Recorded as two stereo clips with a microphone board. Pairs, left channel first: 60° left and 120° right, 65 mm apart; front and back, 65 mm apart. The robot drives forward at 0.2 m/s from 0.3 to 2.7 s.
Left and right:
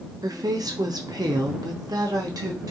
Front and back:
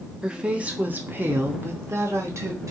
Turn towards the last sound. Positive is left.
turn(degrees=-140)